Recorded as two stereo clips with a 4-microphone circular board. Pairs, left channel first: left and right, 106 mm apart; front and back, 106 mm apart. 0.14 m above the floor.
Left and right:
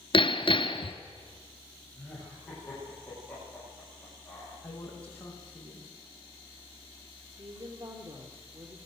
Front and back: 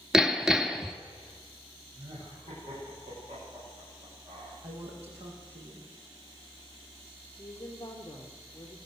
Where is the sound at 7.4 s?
60° right, 4 m.